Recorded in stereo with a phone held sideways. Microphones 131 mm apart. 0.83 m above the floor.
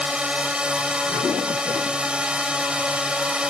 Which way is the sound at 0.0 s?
10° right (ahead or behind).